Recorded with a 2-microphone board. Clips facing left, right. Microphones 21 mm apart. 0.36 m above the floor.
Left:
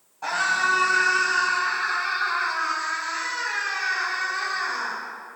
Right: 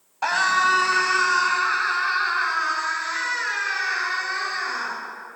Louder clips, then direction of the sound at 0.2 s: Right 3 dB; 60° right (ahead or behind).